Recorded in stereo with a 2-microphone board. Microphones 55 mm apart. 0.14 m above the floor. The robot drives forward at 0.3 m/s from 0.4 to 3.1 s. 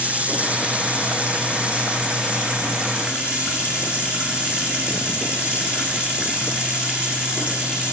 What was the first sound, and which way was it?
Running water, 25° right (ahead or behind).